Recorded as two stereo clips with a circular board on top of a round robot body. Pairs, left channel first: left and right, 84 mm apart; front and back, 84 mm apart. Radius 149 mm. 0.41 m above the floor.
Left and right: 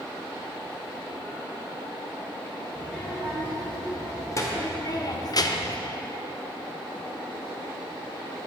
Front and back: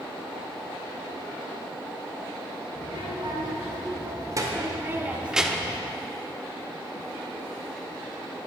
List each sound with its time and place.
2.8 s a child speaking: 155° left, 2.5 m; by 5.8 s 70° left, 1.0 m